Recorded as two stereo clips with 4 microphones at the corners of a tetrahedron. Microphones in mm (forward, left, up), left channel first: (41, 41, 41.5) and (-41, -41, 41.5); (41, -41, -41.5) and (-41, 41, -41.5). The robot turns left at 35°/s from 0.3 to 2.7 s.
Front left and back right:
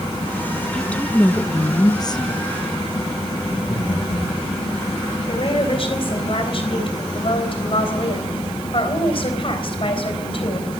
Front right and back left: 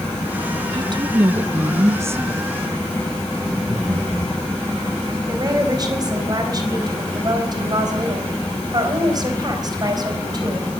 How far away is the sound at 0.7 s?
About 0.7 m.